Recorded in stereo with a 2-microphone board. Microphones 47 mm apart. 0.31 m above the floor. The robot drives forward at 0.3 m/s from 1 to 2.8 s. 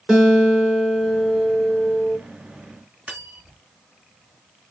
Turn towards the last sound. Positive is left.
turn(degrees=-25)  # may be behind; listen again after turning